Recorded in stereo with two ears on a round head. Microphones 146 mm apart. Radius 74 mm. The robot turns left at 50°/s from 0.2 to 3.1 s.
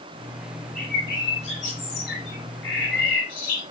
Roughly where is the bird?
Behind.